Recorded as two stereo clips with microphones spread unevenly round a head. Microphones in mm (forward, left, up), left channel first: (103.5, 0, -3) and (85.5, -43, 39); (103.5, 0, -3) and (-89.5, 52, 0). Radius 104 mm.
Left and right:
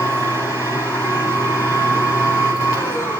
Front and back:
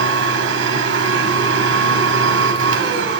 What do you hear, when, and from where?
0.0 s a machine running: 160° left, 1.8 m